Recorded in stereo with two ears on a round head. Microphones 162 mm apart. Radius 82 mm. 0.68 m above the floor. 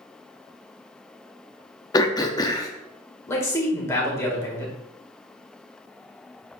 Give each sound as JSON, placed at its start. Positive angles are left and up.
{"t": 1.9, "sound": "throat clearing", "side_deg": 20, "distance_m": 0.6}
{"t": 3.3, "sound": "a man speaking", "side_deg": 15, "distance_m": 1.9}